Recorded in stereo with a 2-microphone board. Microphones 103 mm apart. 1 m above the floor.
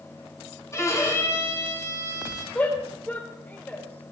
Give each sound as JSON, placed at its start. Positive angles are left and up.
{"t": 0.7, "sound": "a violin", "side_deg": 30, "distance_m": 3.0}
{"t": 2.5, "sound": "a shout", "side_deg": 20, "distance_m": 3.0}